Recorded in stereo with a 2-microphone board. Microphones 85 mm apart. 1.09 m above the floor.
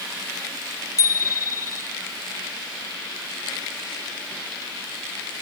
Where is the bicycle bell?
40° left (ahead or behind), 2.5 m.